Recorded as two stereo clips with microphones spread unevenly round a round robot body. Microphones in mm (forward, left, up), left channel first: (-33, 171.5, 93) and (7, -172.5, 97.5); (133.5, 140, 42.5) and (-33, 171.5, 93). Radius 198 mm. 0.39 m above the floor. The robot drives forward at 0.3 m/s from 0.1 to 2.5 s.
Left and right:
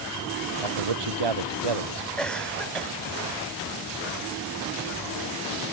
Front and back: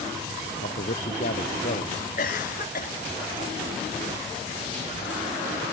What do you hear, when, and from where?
0.6 s a man speaking: 70° right; by 2.1 s 75° right
2.2 s a cough: 10° left